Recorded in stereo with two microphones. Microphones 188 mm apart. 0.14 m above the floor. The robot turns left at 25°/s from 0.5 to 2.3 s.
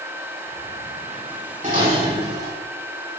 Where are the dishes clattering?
40° right (ahead or behind), 4 m; by 2.5 s 55° right (ahead or behind), 4 m.